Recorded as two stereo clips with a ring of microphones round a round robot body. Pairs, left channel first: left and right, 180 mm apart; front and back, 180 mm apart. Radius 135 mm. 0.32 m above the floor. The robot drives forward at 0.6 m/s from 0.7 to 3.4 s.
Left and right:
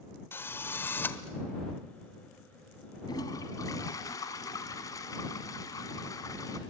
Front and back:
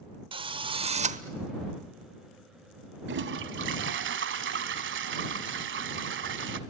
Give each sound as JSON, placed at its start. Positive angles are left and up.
{"t": 0.3, "sound": "a drill", "azimuth_deg": 155, "distance_m": 1.0}
{"t": 3.1, "sound": "a toilet flushing", "azimuth_deg": 165, "distance_m": 1.0}